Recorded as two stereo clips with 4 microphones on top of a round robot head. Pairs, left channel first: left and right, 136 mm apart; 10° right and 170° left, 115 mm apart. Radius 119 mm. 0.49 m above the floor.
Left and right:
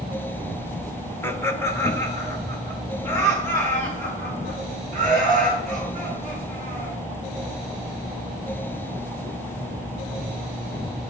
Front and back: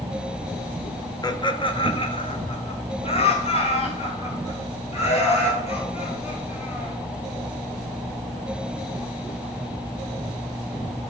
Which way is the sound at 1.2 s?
25° left.